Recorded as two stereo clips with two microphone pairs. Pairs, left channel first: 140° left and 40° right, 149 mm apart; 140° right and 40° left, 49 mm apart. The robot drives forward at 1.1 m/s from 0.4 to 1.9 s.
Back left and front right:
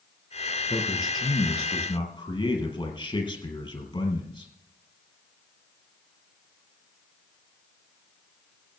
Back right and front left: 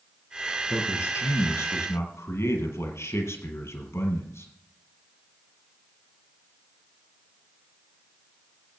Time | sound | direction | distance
0.7 | a man speaking | 155° right | 4.5 m